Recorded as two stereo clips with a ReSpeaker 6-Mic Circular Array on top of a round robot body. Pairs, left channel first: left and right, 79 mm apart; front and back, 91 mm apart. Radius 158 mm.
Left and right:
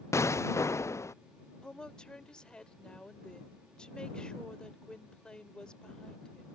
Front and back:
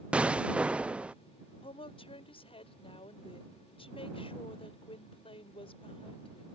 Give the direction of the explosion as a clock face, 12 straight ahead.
8 o'clock.